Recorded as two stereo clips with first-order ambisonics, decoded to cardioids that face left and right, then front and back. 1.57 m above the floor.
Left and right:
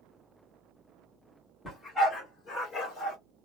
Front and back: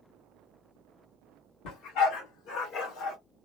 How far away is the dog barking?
About 1.9 m.